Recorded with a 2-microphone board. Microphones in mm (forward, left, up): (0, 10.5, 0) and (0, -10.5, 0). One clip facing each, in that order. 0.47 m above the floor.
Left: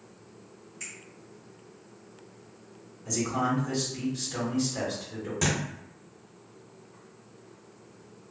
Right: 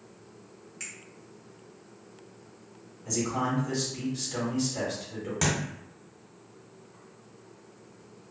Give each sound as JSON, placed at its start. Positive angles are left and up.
{"t": 0.8, "sound": "a finger snap", "side_deg": -40, "distance_m": 1.4}
{"t": 3.0, "sound": "a man speaking", "side_deg": -5, "distance_m": 1.5}
{"t": 5.4, "sound": "a thud", "side_deg": -30, "distance_m": 1.3}